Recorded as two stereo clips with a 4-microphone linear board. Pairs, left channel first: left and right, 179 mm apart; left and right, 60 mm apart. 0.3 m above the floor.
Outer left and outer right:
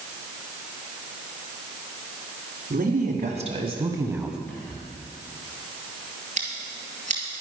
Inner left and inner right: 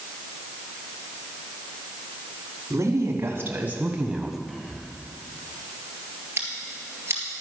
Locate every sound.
2.7 s a woman speaking: 55° right (ahead or behind), 2 m; by 4.4 s 5° right (ahead or behind), 1.5 m
4.5 s whispering: 10° left (ahead or behind), 3 m
6.4 s scissors: 45° right (ahead or behind), 2.5 m